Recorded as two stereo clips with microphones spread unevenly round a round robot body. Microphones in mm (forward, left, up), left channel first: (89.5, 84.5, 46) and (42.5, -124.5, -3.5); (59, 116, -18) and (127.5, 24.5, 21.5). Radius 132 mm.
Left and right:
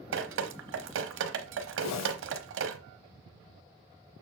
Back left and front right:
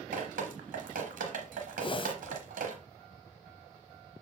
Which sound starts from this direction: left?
A whoosh, at 1.8 s.